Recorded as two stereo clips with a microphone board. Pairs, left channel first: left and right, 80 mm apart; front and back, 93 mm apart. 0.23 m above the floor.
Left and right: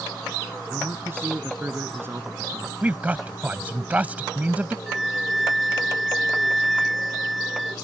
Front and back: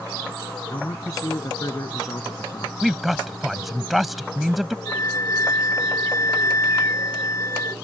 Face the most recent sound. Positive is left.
turn(degrees=0)